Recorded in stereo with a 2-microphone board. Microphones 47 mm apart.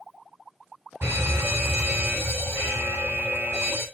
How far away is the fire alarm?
About 5.5 m.